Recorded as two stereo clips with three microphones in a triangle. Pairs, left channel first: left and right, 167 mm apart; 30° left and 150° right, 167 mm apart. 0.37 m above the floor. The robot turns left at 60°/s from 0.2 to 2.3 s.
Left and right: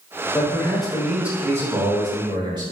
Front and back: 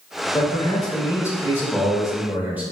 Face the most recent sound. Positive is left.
turn(degrees=-85)